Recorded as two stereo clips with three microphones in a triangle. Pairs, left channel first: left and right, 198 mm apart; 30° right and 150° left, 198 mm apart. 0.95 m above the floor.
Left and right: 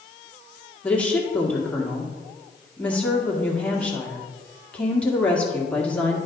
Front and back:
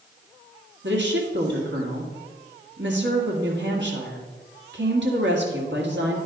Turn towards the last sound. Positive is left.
turn(degrees=170)